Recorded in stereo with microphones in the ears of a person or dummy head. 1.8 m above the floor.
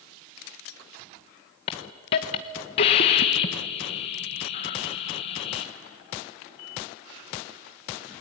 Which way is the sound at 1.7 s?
25° left (ahead or behind).